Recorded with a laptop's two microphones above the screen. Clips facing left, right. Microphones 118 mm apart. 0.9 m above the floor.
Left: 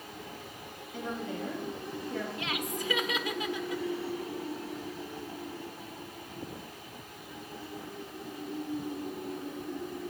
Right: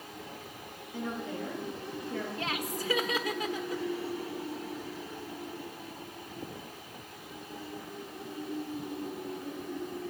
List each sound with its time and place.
0.9 s a woman speaking: 45° right (ahead or behind), 10 m
2.4 s laughter: 35° right (ahead or behind), 1.2 m